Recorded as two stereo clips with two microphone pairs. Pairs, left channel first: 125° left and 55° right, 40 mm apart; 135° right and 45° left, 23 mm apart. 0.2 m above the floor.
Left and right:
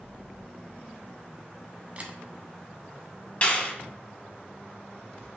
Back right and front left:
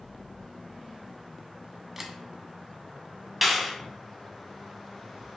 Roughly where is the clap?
Behind left.